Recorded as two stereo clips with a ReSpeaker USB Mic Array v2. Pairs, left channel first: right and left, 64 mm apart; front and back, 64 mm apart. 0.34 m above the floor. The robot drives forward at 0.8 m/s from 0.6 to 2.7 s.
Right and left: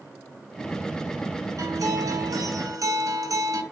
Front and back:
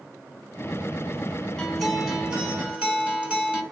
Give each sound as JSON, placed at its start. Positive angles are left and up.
{"t": 1.6, "sound": "a guitar", "azimuth_deg": 85, "distance_m": 2.0}